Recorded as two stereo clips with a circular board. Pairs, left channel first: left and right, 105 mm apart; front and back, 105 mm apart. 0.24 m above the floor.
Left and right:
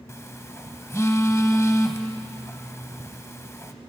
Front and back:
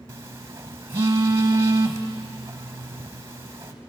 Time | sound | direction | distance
0.1 | a phone buzzing | 135° left | 0.8 m